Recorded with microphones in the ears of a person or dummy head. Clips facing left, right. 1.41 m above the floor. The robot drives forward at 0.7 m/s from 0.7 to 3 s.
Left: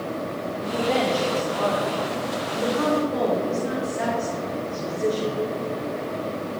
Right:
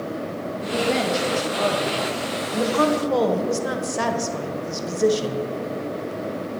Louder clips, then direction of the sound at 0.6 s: Even; 25° right (ahead or behind).